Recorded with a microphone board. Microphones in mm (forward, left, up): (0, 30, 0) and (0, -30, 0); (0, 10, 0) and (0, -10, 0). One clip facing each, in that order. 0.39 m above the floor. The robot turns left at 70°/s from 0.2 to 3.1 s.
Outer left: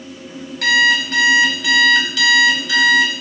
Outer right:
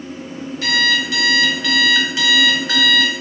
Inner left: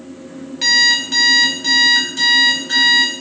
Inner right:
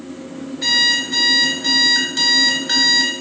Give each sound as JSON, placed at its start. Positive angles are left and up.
{"t": 0.6, "sound": "an alarm clock", "azimuth_deg": 80, "distance_m": 1.4}